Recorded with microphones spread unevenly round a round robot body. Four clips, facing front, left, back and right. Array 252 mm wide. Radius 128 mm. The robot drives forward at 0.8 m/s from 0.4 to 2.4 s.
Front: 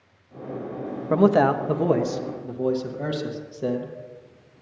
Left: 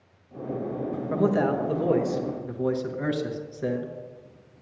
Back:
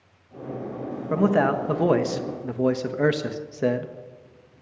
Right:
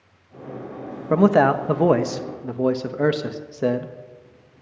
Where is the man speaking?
60° right, 1.3 m; by 3.9 s 120° right, 1.4 m.